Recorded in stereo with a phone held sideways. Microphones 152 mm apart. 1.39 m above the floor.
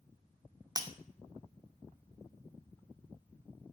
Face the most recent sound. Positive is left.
turn(degrees=-25)  # may be behind; listen again after turning